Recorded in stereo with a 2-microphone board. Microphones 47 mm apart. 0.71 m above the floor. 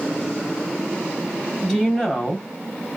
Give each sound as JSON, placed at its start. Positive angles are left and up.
{"t": 1.6, "sound": "a woman speaking", "side_deg": -5, "distance_m": 3.0}